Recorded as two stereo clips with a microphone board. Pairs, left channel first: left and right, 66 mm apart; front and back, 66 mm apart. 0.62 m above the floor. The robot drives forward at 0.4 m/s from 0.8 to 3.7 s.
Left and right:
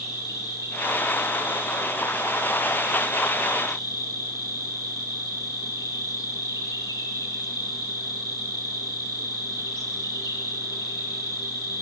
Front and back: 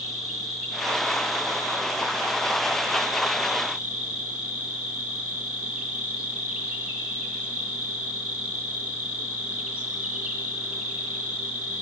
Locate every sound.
0.0 s an insect: 90° left, 4.5 m; by 11.8 s 105° left, 4.5 m